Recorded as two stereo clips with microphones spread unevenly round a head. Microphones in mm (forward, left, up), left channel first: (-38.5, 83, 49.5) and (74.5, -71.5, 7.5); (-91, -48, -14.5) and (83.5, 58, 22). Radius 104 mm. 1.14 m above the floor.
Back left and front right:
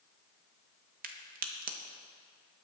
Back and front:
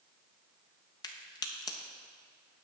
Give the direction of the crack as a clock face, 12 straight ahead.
3 o'clock.